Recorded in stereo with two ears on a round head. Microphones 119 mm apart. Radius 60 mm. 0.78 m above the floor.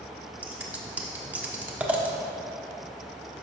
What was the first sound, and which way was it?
Scissors, 15° right (ahead or behind).